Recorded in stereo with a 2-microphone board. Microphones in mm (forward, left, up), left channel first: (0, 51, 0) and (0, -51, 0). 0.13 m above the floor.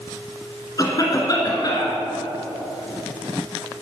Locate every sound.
0.8 s a cough: 35° left (ahead or behind), 1.5 m